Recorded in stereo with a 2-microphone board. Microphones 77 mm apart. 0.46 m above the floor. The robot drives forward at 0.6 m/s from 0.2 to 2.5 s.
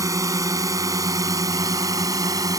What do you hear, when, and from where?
0.0 s a drone: 50° right (ahead or behind); by 2.6 s 55° right (ahead or behind)